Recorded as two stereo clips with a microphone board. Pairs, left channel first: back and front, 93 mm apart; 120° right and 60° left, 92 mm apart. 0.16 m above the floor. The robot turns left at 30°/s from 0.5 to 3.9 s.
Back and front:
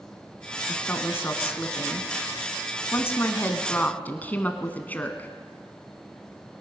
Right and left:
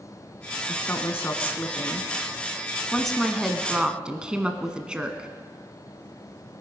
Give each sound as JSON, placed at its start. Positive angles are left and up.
{"t": 0.7, "sound": "a woman speaking", "azimuth_deg": -135, "distance_m": 1.4}